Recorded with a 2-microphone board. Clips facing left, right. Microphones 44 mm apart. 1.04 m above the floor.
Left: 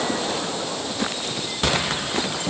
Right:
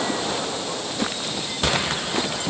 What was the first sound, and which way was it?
Only background noise.